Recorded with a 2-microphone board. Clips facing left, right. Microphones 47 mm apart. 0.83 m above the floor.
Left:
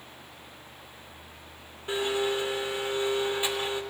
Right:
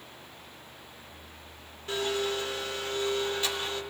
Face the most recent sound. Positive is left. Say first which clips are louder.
# left 2 dB
turn(degrees=20)  # may be behind; listen again after turning